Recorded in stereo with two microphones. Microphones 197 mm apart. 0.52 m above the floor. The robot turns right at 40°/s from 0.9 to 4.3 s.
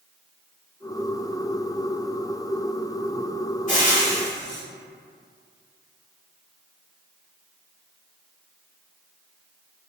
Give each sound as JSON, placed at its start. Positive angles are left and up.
{"t": 3.7, "sound": "frying", "side_deg": 40, "distance_m": 1.5}